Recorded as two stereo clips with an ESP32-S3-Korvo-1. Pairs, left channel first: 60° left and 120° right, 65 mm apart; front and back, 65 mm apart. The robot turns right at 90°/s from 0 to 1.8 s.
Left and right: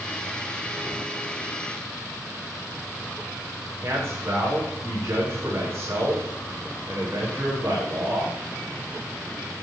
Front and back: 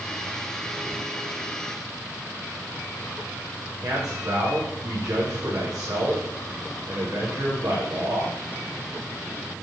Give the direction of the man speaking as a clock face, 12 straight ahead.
6 o'clock.